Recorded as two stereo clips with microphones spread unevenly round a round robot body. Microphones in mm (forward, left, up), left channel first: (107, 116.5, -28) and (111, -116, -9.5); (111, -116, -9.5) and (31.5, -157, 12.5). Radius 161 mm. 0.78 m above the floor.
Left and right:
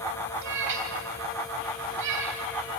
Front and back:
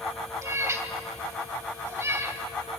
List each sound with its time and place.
0.4 s a cat meowing: 95° right, 3 m